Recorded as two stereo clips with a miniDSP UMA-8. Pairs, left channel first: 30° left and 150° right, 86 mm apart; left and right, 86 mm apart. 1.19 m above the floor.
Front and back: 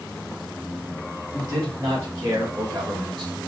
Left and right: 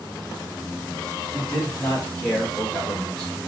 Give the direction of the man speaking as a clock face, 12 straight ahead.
6 o'clock.